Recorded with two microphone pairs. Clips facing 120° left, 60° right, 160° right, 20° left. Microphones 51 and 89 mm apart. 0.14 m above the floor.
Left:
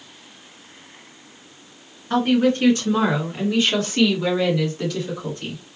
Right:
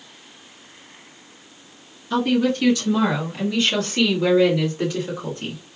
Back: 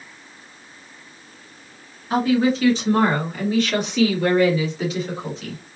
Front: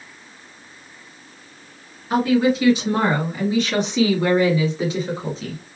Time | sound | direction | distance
2.1 | a woman speaking | 105° left | 1.8 m